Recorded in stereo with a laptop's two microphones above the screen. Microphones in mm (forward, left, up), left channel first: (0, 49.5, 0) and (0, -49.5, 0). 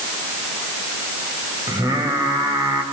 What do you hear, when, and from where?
1.7 s singing: 40° right (ahead or behind), 5 m